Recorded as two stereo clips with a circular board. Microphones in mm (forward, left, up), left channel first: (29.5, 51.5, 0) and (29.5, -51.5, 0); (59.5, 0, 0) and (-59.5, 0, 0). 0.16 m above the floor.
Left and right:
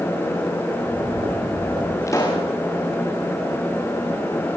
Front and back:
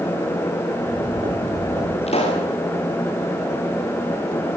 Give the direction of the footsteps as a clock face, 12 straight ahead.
4 o'clock.